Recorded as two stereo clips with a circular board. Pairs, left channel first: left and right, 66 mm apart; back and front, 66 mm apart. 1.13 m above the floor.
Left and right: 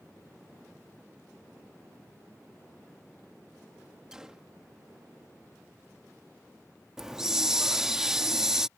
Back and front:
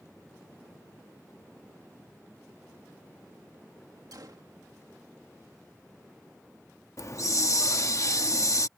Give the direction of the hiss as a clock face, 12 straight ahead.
6 o'clock.